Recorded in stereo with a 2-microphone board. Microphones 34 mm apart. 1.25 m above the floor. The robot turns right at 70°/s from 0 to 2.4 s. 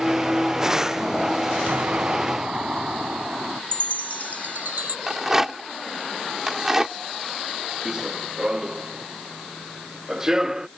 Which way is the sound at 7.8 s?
20° right (ahead or behind).